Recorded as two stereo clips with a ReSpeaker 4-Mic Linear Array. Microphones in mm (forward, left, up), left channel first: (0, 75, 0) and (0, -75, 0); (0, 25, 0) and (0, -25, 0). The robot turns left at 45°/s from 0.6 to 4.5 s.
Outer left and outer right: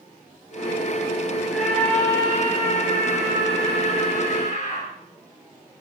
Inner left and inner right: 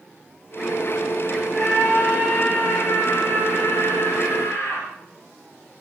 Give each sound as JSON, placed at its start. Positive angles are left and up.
{"t": 1.5, "sound": "a scream", "azimuth_deg": -175, "distance_m": 9.0}